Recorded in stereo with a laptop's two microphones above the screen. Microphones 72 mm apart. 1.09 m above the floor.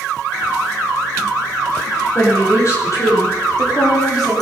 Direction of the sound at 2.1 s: 40° left (ahead or behind).